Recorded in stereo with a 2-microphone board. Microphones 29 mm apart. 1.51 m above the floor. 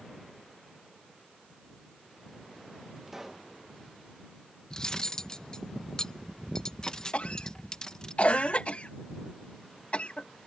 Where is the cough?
45° left (ahead or behind).